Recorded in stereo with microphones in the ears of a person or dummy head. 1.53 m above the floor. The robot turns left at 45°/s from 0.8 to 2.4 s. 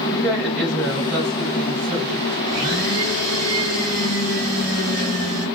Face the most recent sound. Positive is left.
turn(degrees=-50)  # may be behind; listen again after turning